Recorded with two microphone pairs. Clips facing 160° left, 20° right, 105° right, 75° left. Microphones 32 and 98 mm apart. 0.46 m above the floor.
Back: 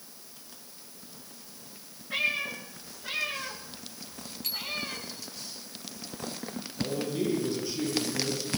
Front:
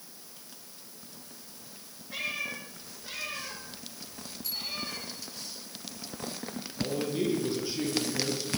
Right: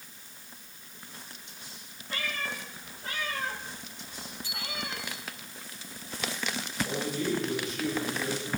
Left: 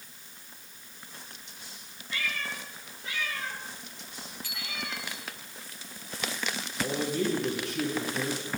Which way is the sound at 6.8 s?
55° left.